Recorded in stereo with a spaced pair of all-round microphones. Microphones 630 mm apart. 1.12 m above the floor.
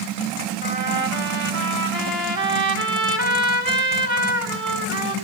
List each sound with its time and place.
0.6 s a trumpet: 70° right (ahead or behind), 4 m